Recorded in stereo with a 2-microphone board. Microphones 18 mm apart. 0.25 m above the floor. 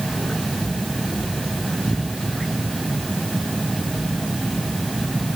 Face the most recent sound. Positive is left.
No sound to turn to.